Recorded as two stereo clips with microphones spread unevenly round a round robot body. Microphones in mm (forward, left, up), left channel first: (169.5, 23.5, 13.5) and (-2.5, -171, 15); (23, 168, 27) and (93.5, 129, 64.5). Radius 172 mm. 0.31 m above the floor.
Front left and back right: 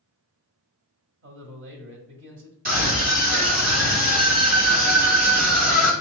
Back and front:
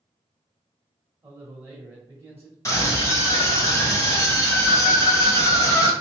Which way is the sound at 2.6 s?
170° left.